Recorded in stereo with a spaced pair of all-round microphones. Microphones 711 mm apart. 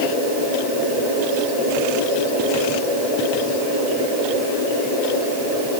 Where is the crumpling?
No crumpling in this recording.